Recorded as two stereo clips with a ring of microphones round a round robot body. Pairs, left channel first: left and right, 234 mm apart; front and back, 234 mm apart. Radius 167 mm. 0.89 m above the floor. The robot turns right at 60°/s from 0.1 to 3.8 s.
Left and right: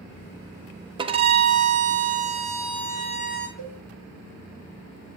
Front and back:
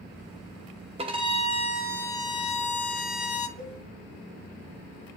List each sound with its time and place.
1.0 s a violin: 140° right, 0.5 m; by 3.5 s 10° left, 0.5 m
3.6 s a cowbell: 65° right, 3 m; by 3.8 s 50° right, 3 m